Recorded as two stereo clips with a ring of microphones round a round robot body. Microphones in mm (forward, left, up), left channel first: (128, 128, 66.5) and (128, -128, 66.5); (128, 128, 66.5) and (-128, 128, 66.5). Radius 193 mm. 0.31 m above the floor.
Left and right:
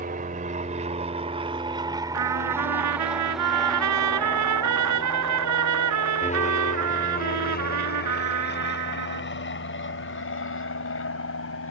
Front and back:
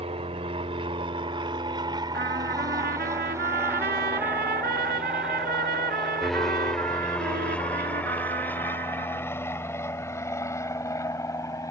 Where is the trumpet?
115° right.